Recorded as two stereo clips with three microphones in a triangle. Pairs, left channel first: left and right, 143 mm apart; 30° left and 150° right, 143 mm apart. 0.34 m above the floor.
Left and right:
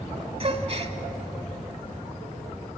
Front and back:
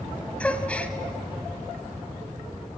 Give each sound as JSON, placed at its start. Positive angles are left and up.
{"t": 0.4, "sound": "a gasp", "azimuth_deg": -50, "distance_m": 1.0}